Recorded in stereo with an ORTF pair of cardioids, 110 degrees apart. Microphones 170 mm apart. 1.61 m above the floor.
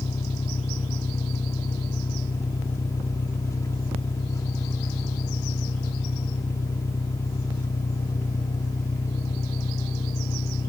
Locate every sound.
0.0 s an engine running: 20° left